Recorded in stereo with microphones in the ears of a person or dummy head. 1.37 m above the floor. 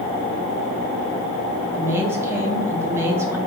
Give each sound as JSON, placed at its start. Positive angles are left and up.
{"t": 1.7, "sound": "a woman speaking", "side_deg": -10, "distance_m": 0.8}